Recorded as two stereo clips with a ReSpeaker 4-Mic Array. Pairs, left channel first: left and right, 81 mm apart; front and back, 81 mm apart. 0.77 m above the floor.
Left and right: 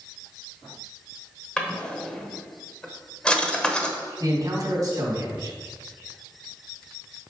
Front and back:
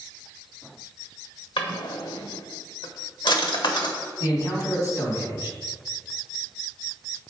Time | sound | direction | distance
1.6 | a drawer | 10° left | 1.0 m
4.2 | a man speaking | 45° right | 3.5 m